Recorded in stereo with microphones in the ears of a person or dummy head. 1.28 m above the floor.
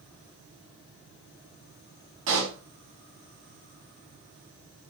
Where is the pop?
65° right (ahead or behind), 3.5 m.